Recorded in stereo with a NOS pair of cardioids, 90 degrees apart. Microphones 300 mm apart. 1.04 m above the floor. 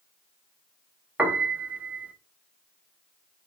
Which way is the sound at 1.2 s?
5° right.